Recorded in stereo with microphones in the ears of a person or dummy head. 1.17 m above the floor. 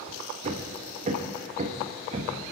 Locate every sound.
0.4 s hammering: 40° right (ahead or behind), 0.9 m